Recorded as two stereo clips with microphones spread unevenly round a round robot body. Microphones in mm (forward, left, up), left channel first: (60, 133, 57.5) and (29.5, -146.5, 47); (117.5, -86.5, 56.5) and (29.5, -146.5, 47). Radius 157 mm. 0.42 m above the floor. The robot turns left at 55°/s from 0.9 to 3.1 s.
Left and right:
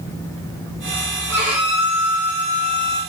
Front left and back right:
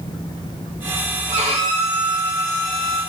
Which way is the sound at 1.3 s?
150° right.